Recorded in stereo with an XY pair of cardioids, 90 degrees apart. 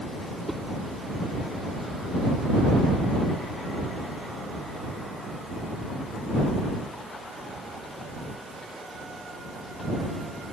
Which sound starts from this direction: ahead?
A whoosh, at 0.5 s.